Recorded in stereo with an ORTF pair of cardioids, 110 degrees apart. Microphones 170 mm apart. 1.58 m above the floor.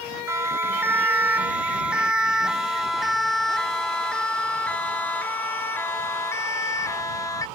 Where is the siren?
15° right; by 7.5 s 20° left.